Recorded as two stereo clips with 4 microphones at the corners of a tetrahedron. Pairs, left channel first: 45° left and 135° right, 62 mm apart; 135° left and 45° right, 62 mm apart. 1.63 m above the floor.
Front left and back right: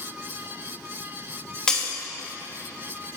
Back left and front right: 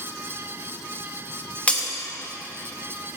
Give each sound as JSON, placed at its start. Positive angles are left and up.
{"t": 1.7, "sound": "breaking glass", "azimuth_deg": 105, "distance_m": 1.0}